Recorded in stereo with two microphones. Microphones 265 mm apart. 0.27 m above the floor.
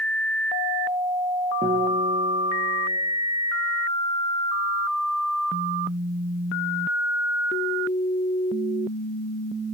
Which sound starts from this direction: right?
A guitar, at 1.6 s.